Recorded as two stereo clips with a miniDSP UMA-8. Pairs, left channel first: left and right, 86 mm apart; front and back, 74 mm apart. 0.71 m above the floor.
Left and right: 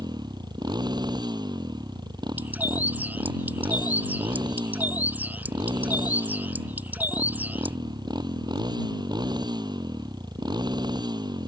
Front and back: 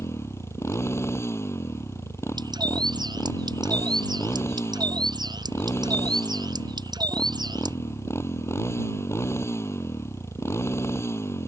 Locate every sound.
0.0 s a motorcycle: 55° right
2.4 s a bird: 160° right